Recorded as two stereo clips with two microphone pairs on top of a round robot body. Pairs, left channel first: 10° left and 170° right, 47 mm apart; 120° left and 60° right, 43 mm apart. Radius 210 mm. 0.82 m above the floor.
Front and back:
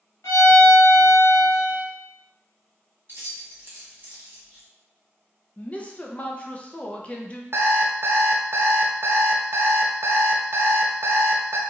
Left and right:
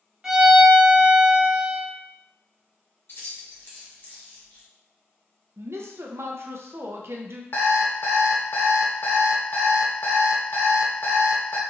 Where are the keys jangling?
155° left, 1.5 m.